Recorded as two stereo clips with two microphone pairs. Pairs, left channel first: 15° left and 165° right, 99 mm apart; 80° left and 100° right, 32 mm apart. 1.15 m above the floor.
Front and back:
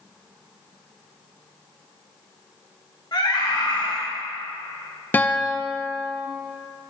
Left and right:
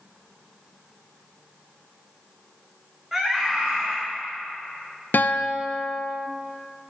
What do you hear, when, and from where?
3.1 s a scream: 25° right, 1.8 m
5.1 s a guitar: 90° left, 0.6 m